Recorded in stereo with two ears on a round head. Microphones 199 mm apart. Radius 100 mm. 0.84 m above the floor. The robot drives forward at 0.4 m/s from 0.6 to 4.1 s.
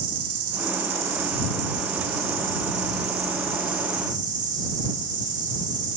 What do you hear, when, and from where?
0.0 s an insect: 65° right (ahead or behind), 0.9 m; by 6.0 s 35° right (ahead or behind), 1.4 m